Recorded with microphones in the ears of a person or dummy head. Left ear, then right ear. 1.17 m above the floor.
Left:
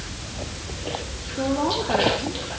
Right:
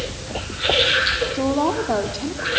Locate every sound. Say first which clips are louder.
1.3 s a woman speaking: right 3 dB; 80° right, 2.5 m